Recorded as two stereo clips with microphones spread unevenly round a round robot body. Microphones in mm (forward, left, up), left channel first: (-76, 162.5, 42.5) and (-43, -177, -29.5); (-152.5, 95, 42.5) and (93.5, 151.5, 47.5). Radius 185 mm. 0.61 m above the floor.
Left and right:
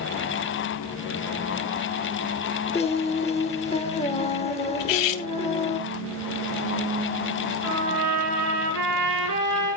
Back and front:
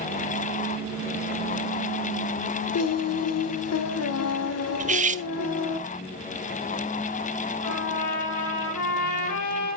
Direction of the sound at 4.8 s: 75° left.